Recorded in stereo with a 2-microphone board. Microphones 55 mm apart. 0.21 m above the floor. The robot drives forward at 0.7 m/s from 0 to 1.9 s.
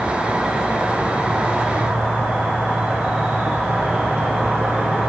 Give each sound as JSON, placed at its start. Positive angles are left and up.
{"t": 0.0, "sound": "an insect", "side_deg": -20, "distance_m": 5.0}